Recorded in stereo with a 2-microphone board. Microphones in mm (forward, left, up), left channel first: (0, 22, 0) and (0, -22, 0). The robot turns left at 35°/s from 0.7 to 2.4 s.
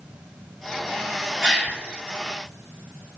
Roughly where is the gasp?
Centre.